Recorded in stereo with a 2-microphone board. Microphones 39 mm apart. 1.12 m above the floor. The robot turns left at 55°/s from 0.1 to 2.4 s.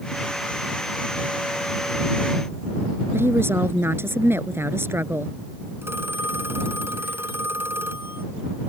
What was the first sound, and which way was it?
A woman speaking, 80° right.